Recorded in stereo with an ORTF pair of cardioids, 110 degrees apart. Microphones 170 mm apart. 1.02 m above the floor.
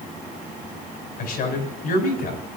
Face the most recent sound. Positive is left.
turn(degrees=60)